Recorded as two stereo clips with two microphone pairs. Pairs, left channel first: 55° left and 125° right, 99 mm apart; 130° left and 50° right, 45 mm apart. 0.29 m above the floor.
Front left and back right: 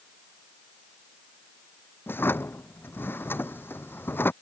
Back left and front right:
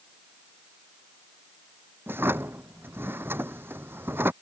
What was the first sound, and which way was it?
A drawer, 15° right.